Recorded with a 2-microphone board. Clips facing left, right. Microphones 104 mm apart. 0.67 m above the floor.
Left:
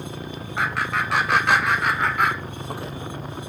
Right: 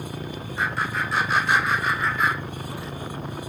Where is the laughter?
75° left (ahead or behind), 4 m; by 2.9 s 55° left (ahead or behind), 1.7 m.